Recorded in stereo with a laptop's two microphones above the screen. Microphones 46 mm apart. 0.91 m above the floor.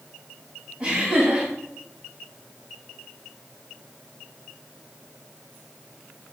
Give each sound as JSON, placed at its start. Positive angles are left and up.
{"t": 0.8, "sound": "laughter", "side_deg": -40, "distance_m": 1.9}